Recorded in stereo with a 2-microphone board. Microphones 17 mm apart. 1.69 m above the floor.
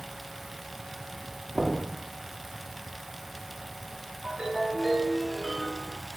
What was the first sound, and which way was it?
Knocking, 75° right (ahead or behind).